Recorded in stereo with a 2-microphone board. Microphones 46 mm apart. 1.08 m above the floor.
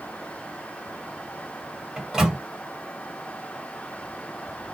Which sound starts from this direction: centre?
A microwave, at 2.0 s.